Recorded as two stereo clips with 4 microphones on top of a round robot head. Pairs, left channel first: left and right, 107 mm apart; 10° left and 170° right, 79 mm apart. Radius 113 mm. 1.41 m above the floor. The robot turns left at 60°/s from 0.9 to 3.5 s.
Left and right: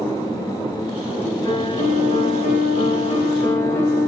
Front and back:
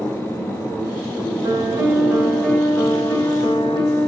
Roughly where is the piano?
Behind left.